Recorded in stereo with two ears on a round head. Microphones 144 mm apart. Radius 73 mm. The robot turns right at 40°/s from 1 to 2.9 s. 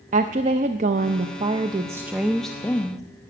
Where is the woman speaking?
55° right, 0.5 m; by 3.0 s 20° left, 0.5 m.